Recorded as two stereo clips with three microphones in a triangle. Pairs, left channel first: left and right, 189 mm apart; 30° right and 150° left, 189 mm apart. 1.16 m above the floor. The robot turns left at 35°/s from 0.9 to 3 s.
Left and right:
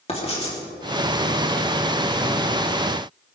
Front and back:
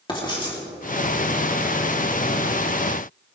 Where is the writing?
35° left, 3 m.